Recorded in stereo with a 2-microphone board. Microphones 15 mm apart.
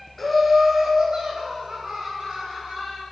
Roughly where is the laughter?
Centre.